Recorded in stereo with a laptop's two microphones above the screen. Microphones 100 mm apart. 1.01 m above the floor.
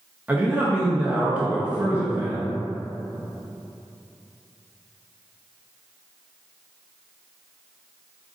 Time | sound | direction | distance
0.3 | a man speaking | 15° right (ahead or behind) | 0.7 m